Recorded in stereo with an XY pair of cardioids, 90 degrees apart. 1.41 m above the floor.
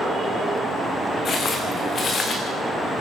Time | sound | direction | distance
1.2 | footsteps | 55° left | 7 m